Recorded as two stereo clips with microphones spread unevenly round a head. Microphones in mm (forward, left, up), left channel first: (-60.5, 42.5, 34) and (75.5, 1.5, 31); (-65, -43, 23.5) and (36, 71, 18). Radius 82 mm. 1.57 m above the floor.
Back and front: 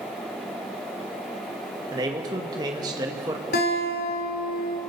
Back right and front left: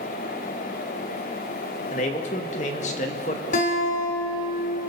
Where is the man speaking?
85° right, 1.9 m.